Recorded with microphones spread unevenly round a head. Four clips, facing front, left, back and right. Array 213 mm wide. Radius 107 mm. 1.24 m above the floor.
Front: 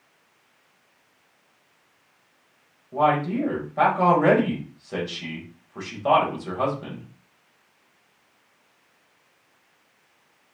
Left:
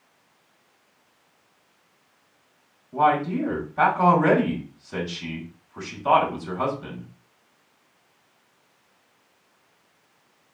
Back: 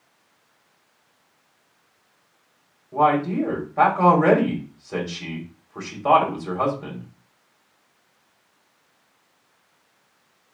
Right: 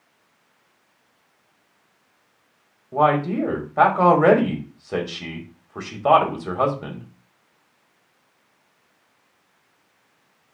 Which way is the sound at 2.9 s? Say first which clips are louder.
Right 2 dB, back 2 dB; 100° right.